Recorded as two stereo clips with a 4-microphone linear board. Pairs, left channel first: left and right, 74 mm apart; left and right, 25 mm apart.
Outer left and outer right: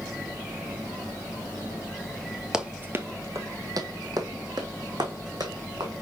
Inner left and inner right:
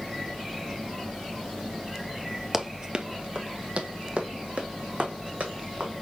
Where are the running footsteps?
10° right (ahead or behind), 0.8 m; by 5.9 s 65° right (ahead or behind), 3.5 m.